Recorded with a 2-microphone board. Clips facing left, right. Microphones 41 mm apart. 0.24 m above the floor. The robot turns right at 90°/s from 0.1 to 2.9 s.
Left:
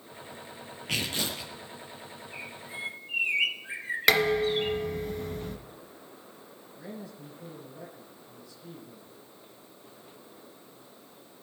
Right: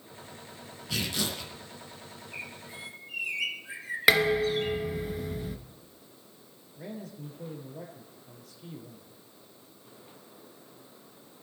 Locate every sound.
0.9 s tearing paper: 115° left, 6.5 m; by 1.5 s 170° left, 6.5 m
2.3 s a bird: 20° right, 5.5 m; by 4.8 s 30° left, 5.5 m
4.1 s dishes clattering: 10° right (ahead or behind), 2.0 m
6.8 s a man speaking: 75° right (ahead or behind), 7 m